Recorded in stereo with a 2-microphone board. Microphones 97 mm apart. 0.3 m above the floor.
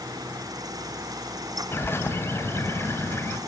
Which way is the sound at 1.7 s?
25° left (ahead or behind).